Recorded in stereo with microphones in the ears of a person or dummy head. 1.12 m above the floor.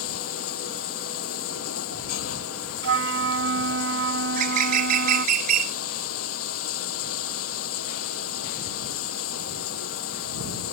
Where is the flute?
80° right.